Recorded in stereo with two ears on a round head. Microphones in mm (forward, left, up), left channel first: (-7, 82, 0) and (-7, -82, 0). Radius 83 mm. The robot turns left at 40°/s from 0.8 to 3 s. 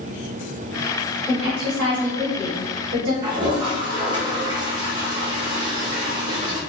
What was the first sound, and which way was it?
A woman speaking, 40° left.